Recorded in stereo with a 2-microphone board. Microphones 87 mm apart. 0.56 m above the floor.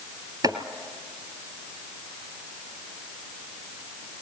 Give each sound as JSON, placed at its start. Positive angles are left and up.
{"t": 0.4, "sound": "chopping", "side_deg": -50, "distance_m": 1.7}